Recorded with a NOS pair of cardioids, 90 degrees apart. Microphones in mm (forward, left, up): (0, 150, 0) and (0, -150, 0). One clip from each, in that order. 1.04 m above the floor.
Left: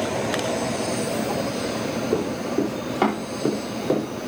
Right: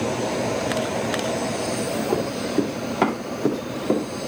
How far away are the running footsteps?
About 6 m.